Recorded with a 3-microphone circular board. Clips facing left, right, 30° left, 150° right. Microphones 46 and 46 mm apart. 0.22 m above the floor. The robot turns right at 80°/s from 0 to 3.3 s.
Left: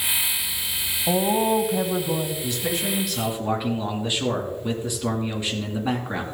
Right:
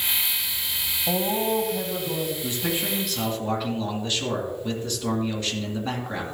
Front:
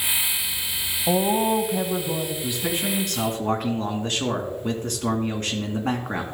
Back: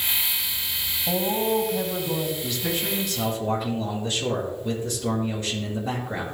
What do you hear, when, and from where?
1.1 s a woman speaking: 30° left, 1.1 m; by 2.3 s 130° left, 1.1 m
2.4 s a man speaking: 50° right, 2.5 m; by 6.2 s 20° left, 2.5 m